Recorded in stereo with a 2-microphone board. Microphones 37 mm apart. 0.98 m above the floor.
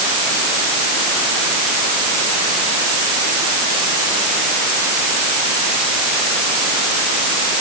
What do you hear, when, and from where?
Only background noise.